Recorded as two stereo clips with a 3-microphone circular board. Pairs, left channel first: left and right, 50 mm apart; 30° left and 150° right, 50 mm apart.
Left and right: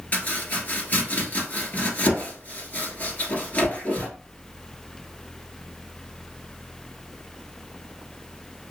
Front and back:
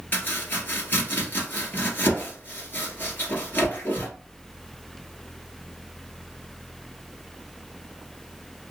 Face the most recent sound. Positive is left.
turn(degrees=55)